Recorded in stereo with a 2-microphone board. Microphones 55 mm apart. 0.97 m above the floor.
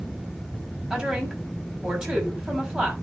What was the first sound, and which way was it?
A woman speaking, 10° right (ahead or behind).